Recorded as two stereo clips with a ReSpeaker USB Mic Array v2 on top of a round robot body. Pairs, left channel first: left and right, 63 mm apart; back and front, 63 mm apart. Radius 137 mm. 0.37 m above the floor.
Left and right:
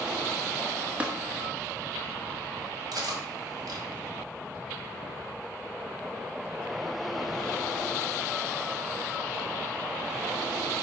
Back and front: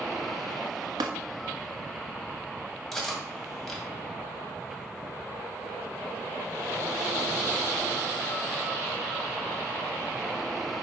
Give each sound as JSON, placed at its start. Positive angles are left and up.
{"t": 1.0, "sound": "tapping", "azimuth_deg": -20, "distance_m": 1.0}
{"t": 2.9, "sound": "cutlery clinking", "azimuth_deg": -95, "distance_m": 2.0}